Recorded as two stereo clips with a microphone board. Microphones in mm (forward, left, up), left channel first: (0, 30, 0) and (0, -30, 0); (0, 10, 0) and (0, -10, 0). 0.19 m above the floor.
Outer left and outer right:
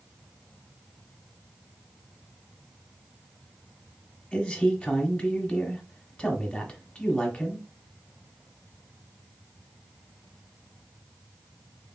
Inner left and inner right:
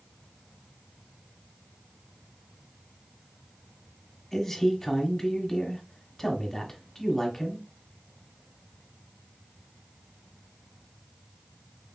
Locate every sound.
4.3 s a man speaking: 20° left (ahead or behind), 1.2 m